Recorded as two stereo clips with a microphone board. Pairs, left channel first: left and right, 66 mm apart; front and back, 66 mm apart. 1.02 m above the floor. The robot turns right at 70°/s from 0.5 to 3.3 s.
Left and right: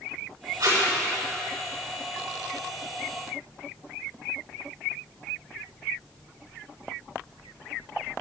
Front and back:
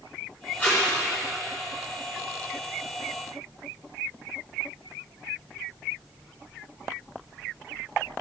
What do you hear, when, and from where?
0.6 s tape being pulled: 65° right, 3.5 m; by 0.8 s 45° right, 3.5 m